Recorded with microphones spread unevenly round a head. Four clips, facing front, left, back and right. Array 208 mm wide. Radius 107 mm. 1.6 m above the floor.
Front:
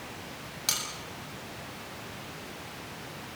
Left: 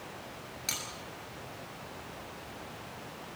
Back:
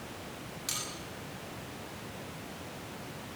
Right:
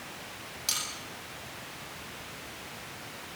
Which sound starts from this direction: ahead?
Cutlery clinking, at 0.7 s.